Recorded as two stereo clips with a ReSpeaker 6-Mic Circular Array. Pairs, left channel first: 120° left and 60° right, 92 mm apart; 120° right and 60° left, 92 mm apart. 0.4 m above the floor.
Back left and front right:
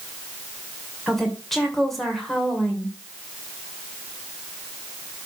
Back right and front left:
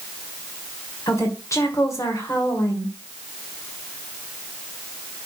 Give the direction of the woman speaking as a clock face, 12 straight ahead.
5 o'clock.